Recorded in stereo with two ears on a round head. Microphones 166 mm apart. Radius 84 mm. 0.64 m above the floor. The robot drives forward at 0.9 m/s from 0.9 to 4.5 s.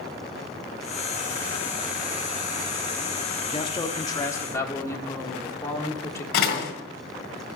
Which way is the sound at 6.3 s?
60° left (ahead or behind).